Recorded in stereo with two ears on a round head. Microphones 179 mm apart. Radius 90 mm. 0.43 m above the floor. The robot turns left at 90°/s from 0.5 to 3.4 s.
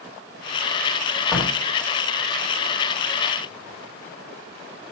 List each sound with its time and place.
1.3 s a door slam: centre (ahead or behind), 1.8 m; by 1.6 s 25° left (ahead or behind), 1.8 m